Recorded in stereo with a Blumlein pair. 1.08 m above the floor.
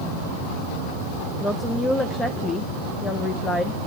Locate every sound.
1.4 s a woman speaking: 10° left, 0.8 m